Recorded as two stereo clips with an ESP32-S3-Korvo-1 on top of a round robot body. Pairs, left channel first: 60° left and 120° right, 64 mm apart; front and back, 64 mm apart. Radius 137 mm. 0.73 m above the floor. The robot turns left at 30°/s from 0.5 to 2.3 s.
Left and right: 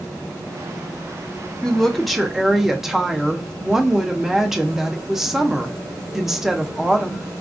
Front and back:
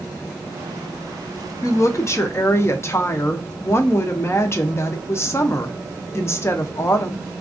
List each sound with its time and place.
1.6 s a woman speaking: 15° right, 0.6 m; by 7.2 s 40° right, 0.6 m